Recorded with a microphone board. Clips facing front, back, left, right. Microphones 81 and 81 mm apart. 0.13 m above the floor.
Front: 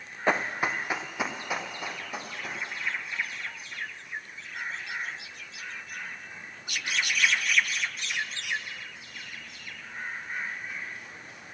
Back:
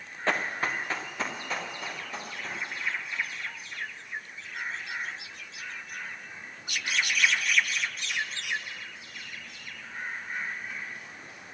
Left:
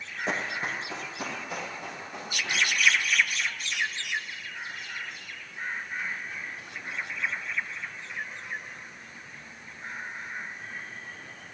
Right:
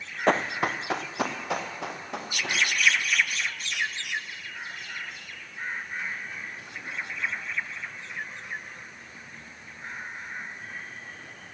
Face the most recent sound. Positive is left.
turn(degrees=-80)